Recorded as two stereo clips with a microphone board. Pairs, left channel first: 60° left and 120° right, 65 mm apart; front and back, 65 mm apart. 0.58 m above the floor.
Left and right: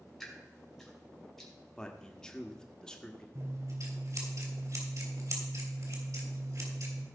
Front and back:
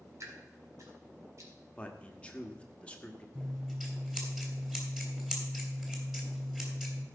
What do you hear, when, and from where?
0.2 s dripping: 145° left, 3 m
1.8 s a man speaking: 10° left, 1.2 m
3.4 s scissors: 100° right, 3 m